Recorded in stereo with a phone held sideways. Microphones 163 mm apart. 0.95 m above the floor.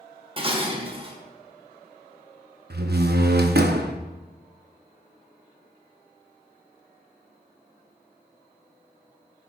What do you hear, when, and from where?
0.4 s dishes clattering: 35° right (ahead or behind), 1.0 m
2.7 s a door slam: 80° right, 0.7 m